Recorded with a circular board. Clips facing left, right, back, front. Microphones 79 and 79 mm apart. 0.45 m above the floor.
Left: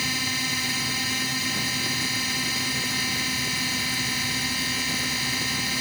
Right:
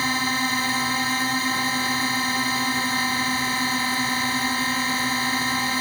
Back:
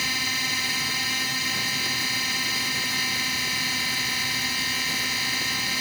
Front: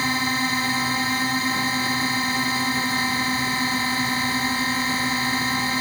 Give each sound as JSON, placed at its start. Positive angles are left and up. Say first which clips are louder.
{"t": 0.0, "sound": "a drone", "louder": "right 6 dB, front 7 dB", "azimuth_deg": -50}